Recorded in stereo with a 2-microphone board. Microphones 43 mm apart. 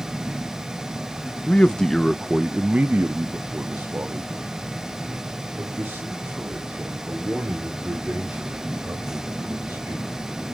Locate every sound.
1.5 s a man speaking: 35° left (ahead or behind), 0.7 m; by 10.2 s 85° right, 4.5 m